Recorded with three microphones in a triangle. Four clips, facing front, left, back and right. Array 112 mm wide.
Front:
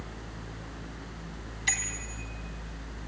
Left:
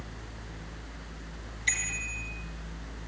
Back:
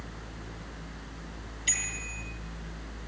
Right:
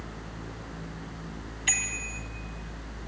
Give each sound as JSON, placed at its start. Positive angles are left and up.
{"t": 1.7, "sound": "a bicycle bell", "azimuth_deg": -45, "distance_m": 4.0}